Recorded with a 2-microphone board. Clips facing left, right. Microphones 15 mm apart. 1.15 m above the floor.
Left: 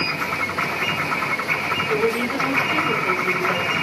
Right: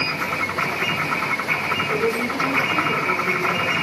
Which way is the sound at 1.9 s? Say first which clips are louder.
Left 1 dB; 55° left (ahead or behind).